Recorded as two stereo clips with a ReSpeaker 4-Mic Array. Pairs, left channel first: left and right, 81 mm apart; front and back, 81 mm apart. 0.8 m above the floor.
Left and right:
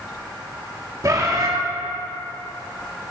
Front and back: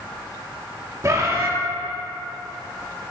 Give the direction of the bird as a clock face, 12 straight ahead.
4 o'clock.